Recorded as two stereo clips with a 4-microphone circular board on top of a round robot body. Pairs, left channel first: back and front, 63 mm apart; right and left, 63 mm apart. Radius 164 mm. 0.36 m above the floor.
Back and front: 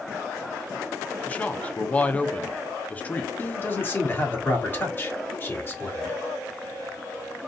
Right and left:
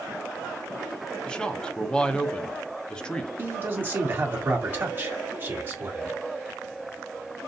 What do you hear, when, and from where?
1.3 s a man speaking: 150° right, 0.9 m
3.4 s a man speaking: 140° left, 1.8 m